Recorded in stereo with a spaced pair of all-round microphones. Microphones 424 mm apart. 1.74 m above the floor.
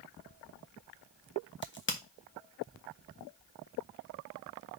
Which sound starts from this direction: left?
A crack, at 1.6 s.